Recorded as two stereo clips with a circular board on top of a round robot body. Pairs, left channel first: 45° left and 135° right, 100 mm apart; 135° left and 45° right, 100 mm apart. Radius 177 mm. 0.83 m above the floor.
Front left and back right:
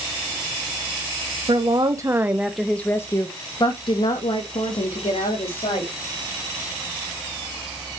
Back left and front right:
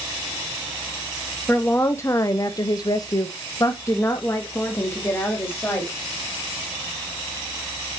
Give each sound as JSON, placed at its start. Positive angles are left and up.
{"t": 1.5, "sound": "a woman speaking", "azimuth_deg": -155, "distance_m": 1.3}